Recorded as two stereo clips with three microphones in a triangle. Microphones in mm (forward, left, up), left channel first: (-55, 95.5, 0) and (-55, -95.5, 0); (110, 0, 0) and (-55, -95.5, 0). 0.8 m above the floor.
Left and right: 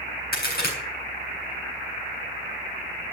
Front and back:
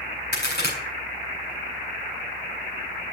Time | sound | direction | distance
0.3 | a crack | 55° left | 4 m